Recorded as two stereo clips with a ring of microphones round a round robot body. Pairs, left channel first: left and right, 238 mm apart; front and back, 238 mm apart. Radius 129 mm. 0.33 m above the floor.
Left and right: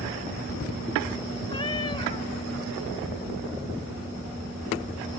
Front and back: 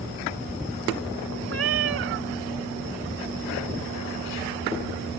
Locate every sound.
1.5 s a cat meowing: 160° left